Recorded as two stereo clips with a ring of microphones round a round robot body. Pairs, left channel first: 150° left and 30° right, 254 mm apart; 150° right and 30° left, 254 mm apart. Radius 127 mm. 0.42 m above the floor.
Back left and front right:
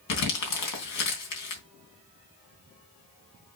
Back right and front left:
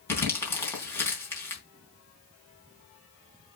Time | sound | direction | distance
0.1 | crumpling | 130° left | 3.5 m